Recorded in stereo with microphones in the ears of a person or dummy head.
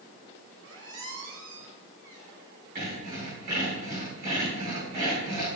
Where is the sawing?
40° right (ahead or behind), 6 m.